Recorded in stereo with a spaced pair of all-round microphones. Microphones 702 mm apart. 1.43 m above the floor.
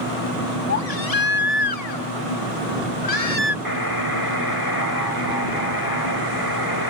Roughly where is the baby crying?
Left.